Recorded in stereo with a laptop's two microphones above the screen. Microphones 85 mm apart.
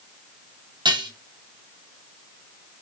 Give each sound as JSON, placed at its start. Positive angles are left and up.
{"t": 0.8, "sound": "dishes clattering", "side_deg": -60, "distance_m": 0.5}